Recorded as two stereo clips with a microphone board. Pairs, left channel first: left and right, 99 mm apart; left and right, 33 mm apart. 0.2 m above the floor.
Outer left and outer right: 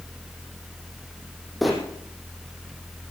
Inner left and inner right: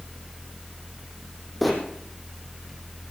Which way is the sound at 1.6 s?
Centre (ahead or behind).